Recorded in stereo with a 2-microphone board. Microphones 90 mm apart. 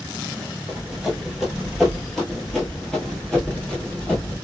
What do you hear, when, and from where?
0.7 s running footsteps: centre (ahead or behind), 1.9 m; by 4.3 s 10° left (ahead or behind), 1.9 m